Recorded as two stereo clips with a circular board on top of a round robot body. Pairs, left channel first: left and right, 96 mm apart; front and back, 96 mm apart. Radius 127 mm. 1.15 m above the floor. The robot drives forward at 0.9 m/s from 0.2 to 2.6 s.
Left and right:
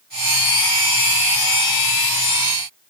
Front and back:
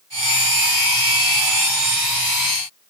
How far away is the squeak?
I don't hear a squeak.